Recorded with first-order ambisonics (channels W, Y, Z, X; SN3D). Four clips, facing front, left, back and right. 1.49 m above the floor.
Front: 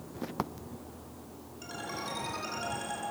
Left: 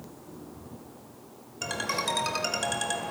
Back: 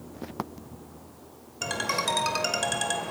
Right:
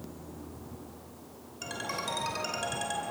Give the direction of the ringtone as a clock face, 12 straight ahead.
7 o'clock.